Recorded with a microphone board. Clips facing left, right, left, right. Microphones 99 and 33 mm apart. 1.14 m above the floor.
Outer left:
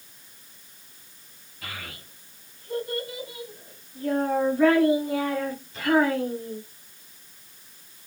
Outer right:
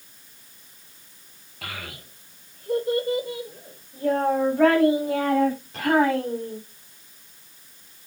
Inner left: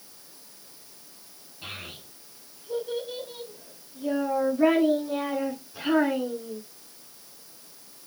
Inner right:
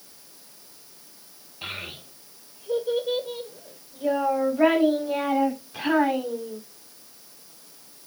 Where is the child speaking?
80° right, 3 m; by 6.6 s 75° right (ahead or behind), 6 m.